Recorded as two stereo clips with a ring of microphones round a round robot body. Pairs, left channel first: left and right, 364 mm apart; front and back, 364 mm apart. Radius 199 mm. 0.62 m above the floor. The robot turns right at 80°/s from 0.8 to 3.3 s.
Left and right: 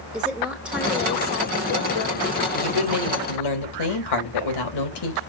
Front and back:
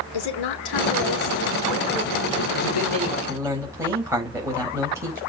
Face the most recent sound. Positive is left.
turn(degrees=95)